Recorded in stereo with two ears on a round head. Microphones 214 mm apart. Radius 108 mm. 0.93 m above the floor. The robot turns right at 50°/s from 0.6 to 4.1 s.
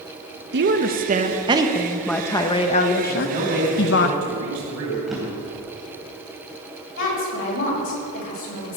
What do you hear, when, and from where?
0.5 s a woman speaking: 70° right, 0.8 m; by 4.1 s 105° left, 0.8 m
3.1 s a man speaking: 155° right, 5 m; by 5.0 s 100° right, 5 m
5.1 s a drawer: centre (ahead or behind), 3 m
7.0 s a woman speaking: 65° left (ahead or behind), 4.5 m